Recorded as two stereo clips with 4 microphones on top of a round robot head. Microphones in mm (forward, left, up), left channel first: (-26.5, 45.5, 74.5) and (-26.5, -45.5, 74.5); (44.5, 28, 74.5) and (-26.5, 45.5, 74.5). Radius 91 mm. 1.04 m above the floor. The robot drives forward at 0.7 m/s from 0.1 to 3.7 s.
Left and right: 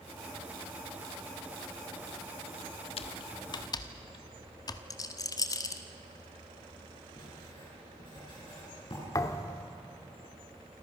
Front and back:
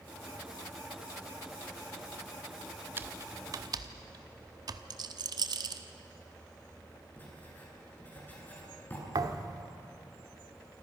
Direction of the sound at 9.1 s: 140° left.